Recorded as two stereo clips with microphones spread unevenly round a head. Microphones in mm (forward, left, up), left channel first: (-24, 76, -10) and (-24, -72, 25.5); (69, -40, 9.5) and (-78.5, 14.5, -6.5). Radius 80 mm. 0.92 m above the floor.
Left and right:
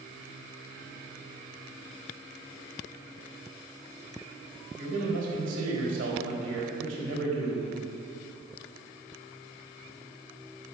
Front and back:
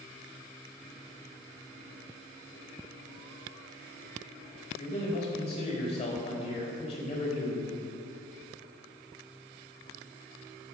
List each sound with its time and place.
4.8 s a man speaking: 70° right, 4 m